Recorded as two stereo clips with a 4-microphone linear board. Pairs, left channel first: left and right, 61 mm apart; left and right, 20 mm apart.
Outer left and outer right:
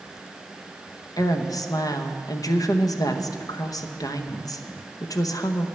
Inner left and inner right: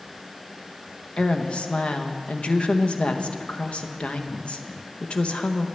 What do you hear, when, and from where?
1.2 s a woman speaking: 65° left (ahead or behind), 0.8 m